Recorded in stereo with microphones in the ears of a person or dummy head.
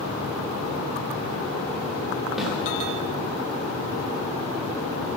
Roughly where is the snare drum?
Centre.